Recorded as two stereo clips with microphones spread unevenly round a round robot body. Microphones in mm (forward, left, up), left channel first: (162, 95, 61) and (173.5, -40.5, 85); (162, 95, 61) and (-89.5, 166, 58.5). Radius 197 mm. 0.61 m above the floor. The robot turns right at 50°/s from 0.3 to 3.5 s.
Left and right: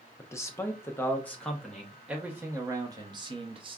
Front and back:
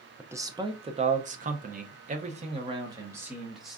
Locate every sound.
0.2 s a man speaking: 90° left, 0.7 m; by 3.8 s 110° right, 0.7 m